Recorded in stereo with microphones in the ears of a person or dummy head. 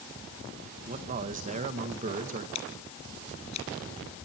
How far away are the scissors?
About 3.5 m.